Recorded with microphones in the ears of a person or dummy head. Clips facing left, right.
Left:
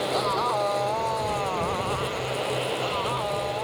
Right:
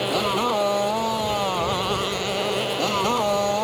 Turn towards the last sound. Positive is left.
turn(degrees=-55)  # may be behind; listen again after turning